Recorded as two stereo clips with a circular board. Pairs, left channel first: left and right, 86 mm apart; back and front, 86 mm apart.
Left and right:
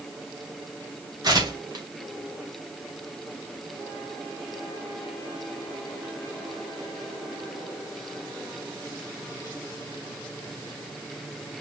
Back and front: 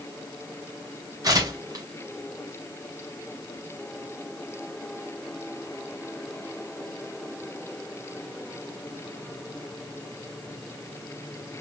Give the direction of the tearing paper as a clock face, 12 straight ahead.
2 o'clock.